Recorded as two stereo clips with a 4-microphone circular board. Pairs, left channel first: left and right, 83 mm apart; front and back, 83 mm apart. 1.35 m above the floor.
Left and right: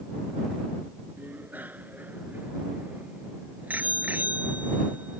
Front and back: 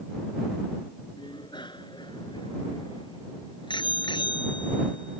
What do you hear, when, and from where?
1.2 s a bicycle bell: 20° right